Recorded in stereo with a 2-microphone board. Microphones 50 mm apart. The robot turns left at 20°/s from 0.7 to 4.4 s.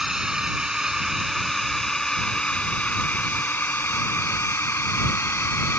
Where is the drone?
15° right (ahead or behind); by 5.8 s 50° left (ahead or behind).